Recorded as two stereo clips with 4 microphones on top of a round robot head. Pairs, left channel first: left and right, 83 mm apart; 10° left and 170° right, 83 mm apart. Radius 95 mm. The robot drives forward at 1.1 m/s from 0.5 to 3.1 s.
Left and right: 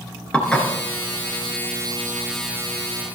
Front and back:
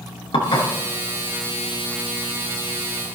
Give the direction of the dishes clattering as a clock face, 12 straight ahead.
12 o'clock.